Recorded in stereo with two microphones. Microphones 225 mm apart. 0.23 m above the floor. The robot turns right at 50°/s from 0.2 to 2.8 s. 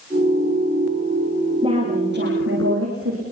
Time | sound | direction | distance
1.6 | a woman speaking | 155° right | 9.5 m